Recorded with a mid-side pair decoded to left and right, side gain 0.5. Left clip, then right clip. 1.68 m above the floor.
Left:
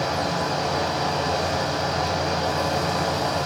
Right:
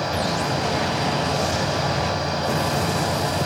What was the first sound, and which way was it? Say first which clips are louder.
A fan: right 1 dB; 5° left.